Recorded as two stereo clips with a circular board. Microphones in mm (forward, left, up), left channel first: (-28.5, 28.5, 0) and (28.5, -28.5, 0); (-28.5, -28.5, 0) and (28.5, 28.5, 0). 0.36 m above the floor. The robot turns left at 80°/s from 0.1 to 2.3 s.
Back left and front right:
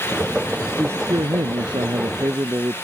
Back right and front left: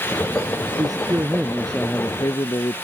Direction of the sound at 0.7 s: 30° left.